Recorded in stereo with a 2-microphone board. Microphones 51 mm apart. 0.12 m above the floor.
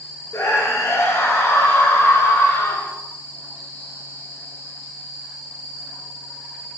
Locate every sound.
0.3 s a scream: 65° left (ahead or behind), 7 m; by 2.9 s 75° left (ahead or behind), 9 m